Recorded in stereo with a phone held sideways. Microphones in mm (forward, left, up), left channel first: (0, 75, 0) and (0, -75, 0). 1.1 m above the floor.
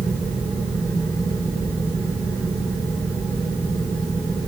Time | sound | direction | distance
0.0 | a fan | 20° left (ahead or behind) | 3 m